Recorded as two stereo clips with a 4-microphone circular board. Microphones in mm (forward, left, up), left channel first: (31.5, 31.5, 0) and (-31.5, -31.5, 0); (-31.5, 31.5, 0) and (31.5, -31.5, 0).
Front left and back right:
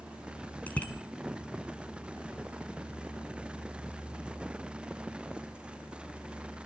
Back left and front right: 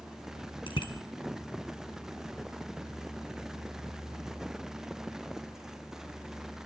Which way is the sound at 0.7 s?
120° left.